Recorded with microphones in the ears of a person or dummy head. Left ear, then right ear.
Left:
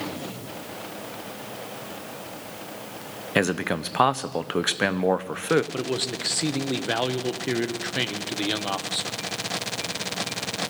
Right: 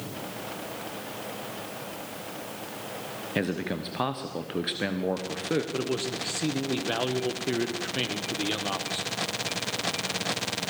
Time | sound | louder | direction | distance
3.4 | a man speaking | left 7 dB | 40° left (ahead or behind) | 1.0 m
5.7 | a man speaking | left 2 dB | 20° left (ahead or behind) | 1.2 m